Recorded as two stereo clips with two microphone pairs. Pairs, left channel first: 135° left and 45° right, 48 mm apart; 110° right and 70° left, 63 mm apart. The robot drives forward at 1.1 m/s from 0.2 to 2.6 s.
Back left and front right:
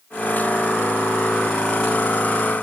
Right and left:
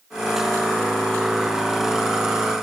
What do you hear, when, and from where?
Only background noise.